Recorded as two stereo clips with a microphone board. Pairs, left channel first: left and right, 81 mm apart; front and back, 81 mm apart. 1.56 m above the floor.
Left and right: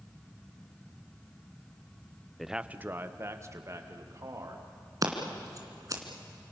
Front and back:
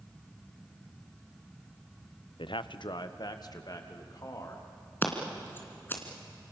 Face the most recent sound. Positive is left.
turn(degrees=-60)